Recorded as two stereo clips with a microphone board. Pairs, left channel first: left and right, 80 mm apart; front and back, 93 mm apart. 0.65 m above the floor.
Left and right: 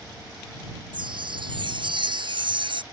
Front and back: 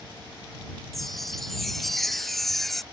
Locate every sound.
0.9 s a chime: 90° right